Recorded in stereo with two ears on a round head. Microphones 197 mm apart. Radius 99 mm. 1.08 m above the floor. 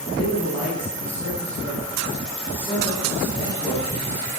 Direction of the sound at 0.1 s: 10° left (ahead or behind).